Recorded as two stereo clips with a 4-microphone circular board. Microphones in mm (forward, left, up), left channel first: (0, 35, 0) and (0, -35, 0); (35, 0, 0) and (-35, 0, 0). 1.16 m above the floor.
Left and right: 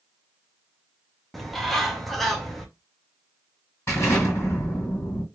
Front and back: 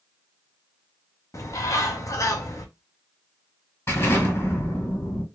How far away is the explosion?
About 2 m.